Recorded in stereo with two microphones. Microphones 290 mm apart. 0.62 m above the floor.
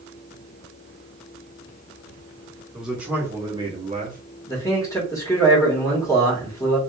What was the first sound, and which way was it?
A man speaking, centre (ahead or behind).